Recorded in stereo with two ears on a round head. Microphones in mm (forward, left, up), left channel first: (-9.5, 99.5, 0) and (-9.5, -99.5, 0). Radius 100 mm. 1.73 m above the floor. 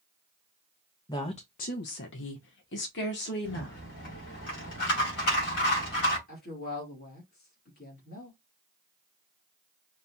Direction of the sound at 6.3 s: 45° left (ahead or behind).